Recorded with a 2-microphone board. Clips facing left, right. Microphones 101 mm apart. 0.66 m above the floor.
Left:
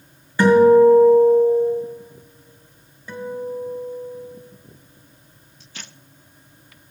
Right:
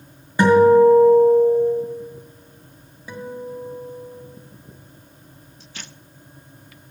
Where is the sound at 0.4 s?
20° right (ahead or behind), 2 m.